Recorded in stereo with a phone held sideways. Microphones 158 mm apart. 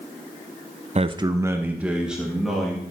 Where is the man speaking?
45° right (ahead or behind), 0.5 m; by 2.8 s centre (ahead or behind), 2 m.